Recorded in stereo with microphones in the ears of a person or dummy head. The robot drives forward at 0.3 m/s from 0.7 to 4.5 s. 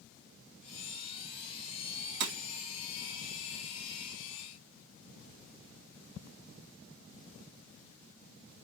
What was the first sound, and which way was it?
Breaking glass, 60° right (ahead or behind).